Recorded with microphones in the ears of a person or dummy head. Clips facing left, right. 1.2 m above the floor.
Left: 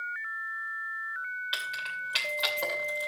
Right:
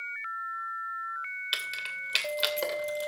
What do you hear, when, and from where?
1.5 s keys jangling: 35° right (ahead or behind), 2.5 m